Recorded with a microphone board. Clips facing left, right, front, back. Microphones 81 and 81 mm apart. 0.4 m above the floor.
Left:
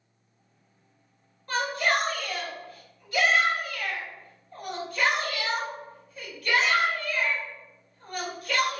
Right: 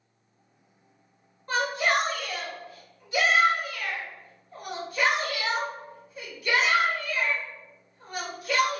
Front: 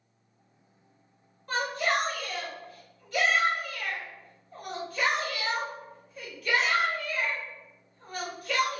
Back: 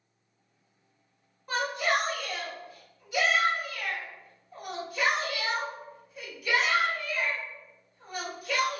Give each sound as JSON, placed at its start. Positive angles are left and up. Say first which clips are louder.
{"t": 1.5, "sound": "a shout", "louder": "right 1 dB, even", "azimuth_deg": -120, "distance_m": 1.5}